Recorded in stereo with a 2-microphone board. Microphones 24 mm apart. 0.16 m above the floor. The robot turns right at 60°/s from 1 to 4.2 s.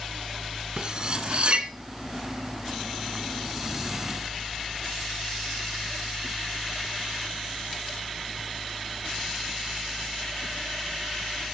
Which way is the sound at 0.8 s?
35° right (ahead or behind).